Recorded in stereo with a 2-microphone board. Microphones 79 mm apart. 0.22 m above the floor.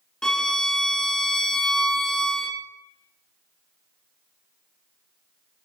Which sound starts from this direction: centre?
A violin, at 0.2 s.